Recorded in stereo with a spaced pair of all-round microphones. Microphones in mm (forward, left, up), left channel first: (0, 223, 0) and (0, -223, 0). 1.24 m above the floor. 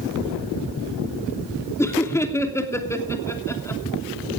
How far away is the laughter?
About 2.5 m.